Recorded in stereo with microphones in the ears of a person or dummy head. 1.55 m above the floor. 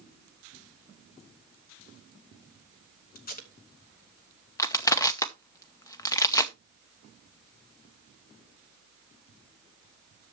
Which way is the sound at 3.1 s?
40° left (ahead or behind).